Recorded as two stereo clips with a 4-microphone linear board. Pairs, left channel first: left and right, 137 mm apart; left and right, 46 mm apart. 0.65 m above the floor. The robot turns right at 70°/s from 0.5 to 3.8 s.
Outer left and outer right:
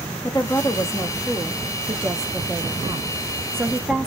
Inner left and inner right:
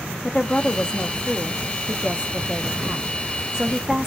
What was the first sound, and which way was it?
A woman speaking, 110° left.